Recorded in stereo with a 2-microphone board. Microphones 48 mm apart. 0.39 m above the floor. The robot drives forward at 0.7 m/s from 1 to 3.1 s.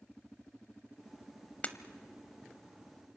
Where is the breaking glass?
30° left (ahead or behind), 0.9 m.